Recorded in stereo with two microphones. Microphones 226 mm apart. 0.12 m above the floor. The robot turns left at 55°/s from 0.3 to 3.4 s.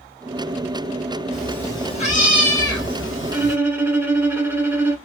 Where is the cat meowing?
175° right, 1.6 m; by 3.6 s 70° left, 1.6 m.